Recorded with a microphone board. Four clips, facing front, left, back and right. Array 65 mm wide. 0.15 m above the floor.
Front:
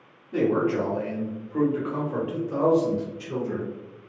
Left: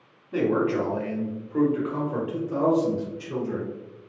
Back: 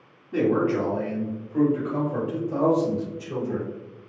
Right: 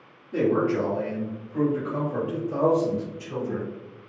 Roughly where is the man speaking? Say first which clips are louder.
Right 1 dB, back 1 dB; left.